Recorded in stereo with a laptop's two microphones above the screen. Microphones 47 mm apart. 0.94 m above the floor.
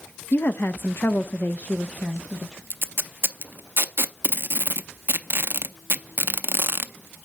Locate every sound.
0.3 s a woman speaking: 40° left (ahead or behind), 0.7 m; by 2.6 s 10° left (ahead or behind), 0.9 m
2.7 s tape being pulled: 45° right (ahead or behind), 0.5 m